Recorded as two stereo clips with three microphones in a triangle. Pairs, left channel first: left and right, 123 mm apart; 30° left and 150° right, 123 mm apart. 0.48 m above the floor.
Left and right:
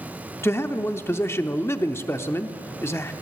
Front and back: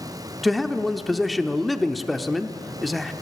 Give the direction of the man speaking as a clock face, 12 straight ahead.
8 o'clock.